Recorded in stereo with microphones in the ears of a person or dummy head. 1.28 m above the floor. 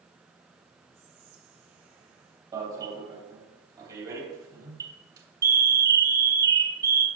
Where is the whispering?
55° right (ahead or behind), 4 m.